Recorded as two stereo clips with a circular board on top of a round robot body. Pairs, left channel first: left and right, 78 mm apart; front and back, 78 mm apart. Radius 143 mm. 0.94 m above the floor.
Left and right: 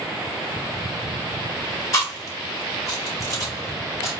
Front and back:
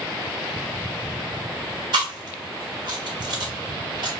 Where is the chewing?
145° left, 1.5 m.